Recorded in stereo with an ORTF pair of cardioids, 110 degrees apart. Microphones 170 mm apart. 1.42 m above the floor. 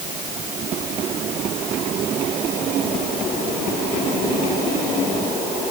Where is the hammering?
No hammering in this recording.